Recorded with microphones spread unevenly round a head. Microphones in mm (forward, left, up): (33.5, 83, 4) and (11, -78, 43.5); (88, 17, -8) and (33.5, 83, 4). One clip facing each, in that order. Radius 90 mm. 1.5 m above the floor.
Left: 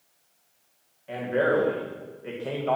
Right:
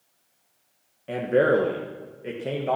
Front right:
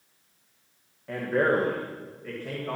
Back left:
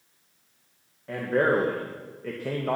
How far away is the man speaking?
About 1.6 m.